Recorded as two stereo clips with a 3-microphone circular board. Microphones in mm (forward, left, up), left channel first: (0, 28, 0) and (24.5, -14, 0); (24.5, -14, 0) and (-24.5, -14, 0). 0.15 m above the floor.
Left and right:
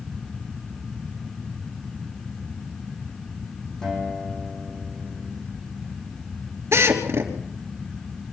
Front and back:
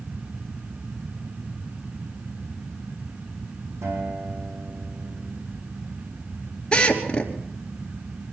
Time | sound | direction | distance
3.8 | a guitar | 165° right | 6.5 m
6.7 | a drill | 65° right | 3 m